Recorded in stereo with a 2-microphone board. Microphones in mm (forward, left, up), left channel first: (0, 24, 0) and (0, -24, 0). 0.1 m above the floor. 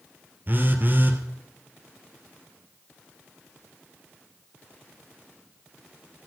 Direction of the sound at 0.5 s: 45° right (ahead or behind).